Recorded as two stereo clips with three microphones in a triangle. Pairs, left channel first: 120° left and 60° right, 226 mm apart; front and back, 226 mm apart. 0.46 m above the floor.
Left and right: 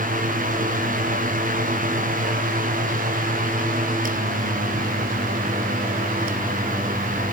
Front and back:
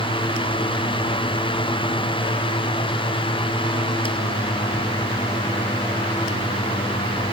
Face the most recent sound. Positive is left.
No sound to turn to.